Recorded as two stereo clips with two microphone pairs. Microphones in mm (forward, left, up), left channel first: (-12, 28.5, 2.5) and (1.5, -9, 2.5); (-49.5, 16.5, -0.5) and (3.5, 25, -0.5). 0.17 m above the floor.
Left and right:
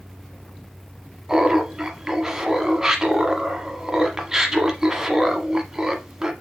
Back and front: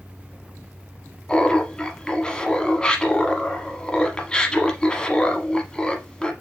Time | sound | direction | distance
1.3 | laughter | 130° right | 1.0 m